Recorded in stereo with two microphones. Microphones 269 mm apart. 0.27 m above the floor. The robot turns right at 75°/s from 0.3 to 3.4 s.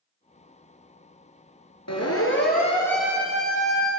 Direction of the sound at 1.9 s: 75° left (ahead or behind).